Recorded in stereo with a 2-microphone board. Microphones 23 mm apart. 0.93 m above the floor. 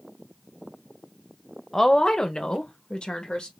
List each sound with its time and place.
1.7 s a woman speaking: 15° left (ahead or behind), 0.8 m; by 3.5 s 40° left (ahead or behind), 1.4 m